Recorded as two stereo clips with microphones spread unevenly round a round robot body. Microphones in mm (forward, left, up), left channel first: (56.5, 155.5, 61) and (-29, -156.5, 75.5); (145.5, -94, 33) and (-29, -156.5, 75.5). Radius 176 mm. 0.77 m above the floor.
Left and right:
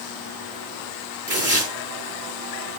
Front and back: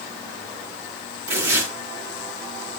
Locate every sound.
1.3 s tearing paper: 175° left, 9 m